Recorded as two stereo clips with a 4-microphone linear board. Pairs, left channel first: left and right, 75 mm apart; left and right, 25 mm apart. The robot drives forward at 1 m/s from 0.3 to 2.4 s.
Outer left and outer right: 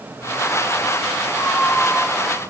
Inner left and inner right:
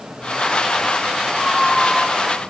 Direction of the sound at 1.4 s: 25° left (ahead or behind).